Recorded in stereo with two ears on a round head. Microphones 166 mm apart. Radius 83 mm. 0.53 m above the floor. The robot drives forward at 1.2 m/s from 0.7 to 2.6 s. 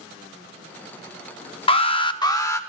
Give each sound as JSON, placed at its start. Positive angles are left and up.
{"t": 1.7, "sound": "an alarm", "side_deg": 30, "distance_m": 0.6}